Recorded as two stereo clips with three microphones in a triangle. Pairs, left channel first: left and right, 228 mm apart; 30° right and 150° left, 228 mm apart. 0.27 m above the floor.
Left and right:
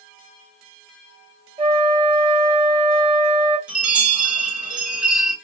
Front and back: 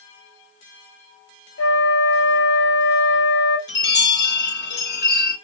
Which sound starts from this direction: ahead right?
A flute, at 1.6 s.